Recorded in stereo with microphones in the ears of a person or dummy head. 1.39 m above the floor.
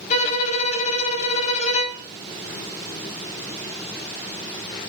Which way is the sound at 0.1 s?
40° left (ahead or behind).